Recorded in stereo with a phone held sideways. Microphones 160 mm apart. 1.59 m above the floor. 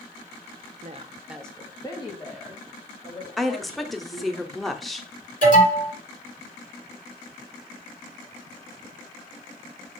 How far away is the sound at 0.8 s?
About 0.6 m.